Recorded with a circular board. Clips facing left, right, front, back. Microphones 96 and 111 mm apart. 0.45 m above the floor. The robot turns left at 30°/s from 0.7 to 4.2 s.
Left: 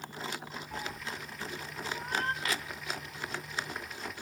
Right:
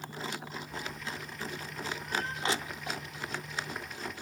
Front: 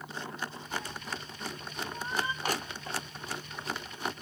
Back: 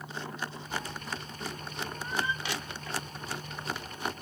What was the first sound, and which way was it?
A cat meowing, 100° left.